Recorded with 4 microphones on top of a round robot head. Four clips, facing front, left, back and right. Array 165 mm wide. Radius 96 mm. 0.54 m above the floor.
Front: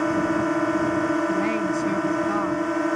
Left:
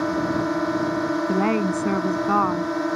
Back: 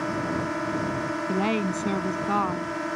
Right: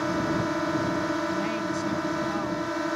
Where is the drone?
35° left.